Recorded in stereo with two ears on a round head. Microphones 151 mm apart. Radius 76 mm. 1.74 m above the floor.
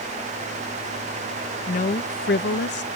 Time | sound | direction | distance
1.7 | a woman speaking | 45° left (ahead or behind) | ?